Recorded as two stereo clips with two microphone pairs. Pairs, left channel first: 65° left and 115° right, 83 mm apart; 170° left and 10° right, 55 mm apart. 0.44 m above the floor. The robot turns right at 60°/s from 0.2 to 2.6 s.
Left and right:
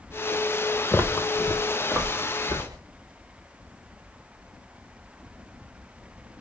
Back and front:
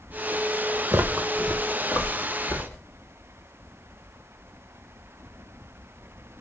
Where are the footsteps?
Straight ahead, 0.7 m; by 2.8 s 155° right, 1.8 m.